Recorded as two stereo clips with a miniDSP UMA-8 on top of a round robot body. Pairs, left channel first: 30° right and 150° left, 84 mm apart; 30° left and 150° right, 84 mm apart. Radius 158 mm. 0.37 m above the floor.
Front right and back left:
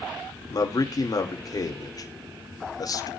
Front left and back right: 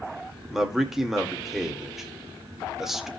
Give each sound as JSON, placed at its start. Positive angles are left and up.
{"t": 0.5, "sound": "a man speaking", "azimuth_deg": -65, "distance_m": 2.0}